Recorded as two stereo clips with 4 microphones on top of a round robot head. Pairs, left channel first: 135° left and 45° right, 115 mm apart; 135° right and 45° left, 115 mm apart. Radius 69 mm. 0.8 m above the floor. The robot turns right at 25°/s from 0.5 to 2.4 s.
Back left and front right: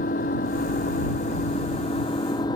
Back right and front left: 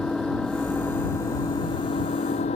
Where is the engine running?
145° left; by 2.6 s 170° right.